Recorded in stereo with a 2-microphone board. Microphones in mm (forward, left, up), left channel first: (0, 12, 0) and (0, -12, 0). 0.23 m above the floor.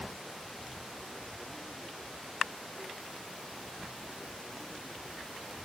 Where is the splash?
No splash in this recording.